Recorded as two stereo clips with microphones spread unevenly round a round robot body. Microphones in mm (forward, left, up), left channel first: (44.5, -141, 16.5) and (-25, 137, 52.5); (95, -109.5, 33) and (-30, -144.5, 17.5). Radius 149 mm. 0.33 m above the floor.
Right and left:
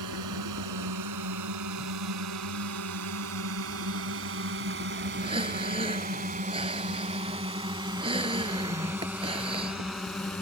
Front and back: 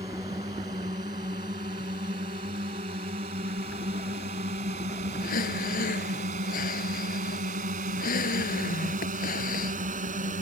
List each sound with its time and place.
0.0 s a drone: 125° left; by 10.4 s 160° right
5.2 s breathing: 30° left